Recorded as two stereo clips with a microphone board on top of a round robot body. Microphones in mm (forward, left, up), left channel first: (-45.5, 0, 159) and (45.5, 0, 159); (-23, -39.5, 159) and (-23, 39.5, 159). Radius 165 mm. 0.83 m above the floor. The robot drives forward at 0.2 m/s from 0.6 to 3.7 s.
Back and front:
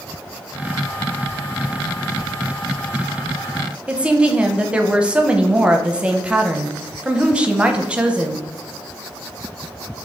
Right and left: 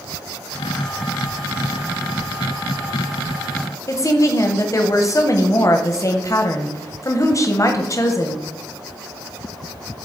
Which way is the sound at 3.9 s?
75° right.